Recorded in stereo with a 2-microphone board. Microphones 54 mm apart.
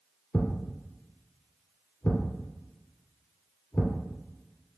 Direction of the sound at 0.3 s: 35° left (ahead or behind).